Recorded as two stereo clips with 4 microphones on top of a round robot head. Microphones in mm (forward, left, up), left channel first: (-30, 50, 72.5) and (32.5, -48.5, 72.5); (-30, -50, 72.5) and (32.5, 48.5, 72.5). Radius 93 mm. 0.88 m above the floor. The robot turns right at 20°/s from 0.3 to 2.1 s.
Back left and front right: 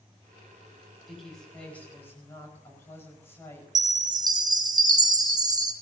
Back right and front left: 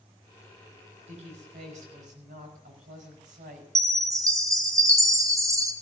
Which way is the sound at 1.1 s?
30° left.